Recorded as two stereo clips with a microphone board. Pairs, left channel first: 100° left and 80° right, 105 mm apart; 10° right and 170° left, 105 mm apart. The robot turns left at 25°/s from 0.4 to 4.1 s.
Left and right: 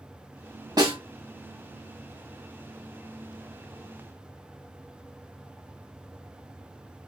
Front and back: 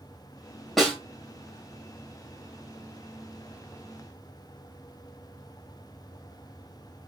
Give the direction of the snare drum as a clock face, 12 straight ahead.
3 o'clock.